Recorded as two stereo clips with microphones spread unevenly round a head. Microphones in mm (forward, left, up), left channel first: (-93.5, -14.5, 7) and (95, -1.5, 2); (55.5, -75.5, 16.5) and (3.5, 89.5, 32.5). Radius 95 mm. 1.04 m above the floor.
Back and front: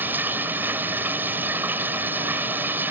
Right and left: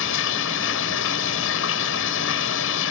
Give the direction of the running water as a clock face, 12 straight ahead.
3 o'clock.